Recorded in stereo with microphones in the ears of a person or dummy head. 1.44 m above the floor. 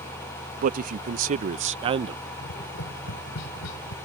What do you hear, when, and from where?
0.6 s a man speaking: 50° right (ahead or behind); by 2.2 s 30° right (ahead or behind)
2.4 s tapping: 80° left